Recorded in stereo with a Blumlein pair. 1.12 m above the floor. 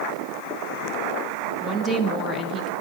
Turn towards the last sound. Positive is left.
turn(degrees=-10)